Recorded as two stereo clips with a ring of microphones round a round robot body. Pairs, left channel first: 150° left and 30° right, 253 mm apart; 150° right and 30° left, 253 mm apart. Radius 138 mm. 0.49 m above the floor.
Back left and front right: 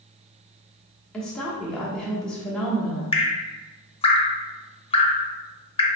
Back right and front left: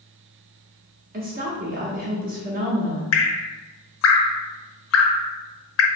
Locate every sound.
1.1 s a woman speaking: 65° left, 0.9 m
3.1 s dripping: 145° right, 0.6 m